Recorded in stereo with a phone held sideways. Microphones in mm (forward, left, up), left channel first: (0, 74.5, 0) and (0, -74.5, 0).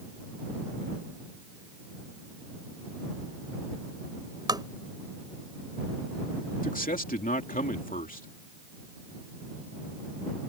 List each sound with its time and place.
4.5 s tapping: 30° right (ahead or behind)
6.6 s a man speaking: 70° left (ahead or behind)